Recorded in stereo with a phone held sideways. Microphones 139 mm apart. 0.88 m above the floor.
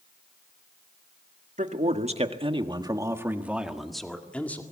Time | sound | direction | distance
1.6 | a man speaking | 60° right (ahead or behind) | 1.7 m